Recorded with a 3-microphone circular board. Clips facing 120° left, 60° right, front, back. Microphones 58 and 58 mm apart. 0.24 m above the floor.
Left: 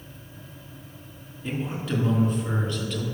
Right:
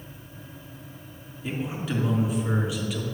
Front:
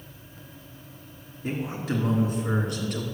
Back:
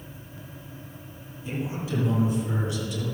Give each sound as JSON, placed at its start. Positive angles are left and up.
{"t": 1.4, "sound": "a man speaking", "azimuth_deg": 25, "distance_m": 4.0}